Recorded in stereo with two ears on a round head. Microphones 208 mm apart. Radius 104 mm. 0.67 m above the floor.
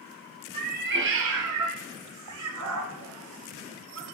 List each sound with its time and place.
0.5 s a cat meowing: 30° right (ahead or behind), 0.7 m; by 4.0 s 60° right (ahead or behind), 1.6 m